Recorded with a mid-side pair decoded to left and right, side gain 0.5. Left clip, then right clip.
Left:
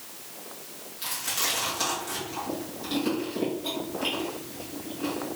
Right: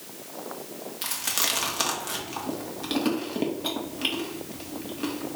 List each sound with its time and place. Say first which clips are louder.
1.0 s chewing: right 2 dB; 55° right, 1.4 m